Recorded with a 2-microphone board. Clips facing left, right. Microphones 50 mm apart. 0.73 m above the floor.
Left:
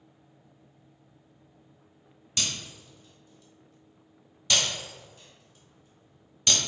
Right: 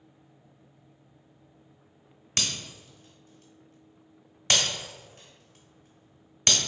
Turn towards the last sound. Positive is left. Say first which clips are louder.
# right 1 dB
turn(degrees=-60)  # may be behind; listen again after turning